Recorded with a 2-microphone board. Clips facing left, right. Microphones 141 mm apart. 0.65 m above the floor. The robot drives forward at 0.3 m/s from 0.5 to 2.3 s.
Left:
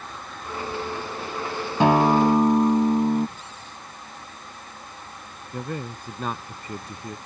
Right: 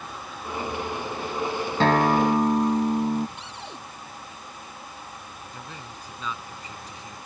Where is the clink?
I don't hear a clink.